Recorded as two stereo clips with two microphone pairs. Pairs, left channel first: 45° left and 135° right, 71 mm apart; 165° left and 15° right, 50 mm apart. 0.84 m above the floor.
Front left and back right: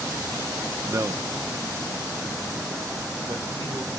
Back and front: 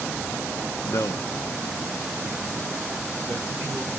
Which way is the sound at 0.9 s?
Straight behind.